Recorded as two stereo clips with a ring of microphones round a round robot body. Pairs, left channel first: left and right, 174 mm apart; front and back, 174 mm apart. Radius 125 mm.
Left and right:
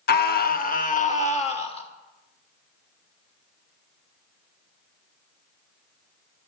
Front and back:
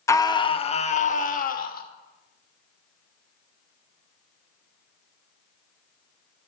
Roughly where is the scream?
Left.